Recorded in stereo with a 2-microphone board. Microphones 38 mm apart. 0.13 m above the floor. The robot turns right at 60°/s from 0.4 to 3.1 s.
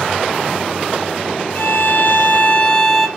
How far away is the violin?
About 1.1 m.